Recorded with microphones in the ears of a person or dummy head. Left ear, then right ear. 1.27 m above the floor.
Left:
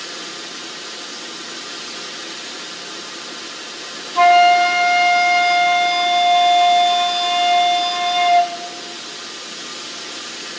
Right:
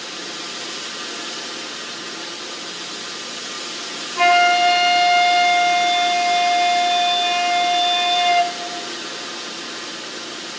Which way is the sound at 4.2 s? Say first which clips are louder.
Left 3 dB; 40° left (ahead or behind).